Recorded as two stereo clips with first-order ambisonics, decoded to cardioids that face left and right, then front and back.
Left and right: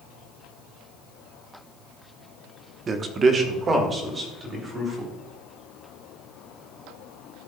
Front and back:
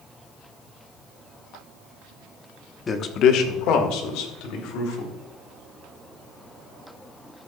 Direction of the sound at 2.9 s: 55° right.